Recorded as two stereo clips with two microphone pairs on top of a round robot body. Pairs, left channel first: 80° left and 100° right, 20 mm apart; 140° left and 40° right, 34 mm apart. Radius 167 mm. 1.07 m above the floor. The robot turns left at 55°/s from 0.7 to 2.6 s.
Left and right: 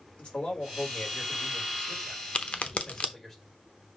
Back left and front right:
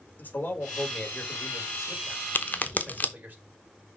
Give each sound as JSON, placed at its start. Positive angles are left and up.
{"t": 0.2, "sound": "a man speaking", "azimuth_deg": 110, "distance_m": 4.0}
{"t": 2.4, "sound": "a crack", "azimuth_deg": 115, "distance_m": 0.9}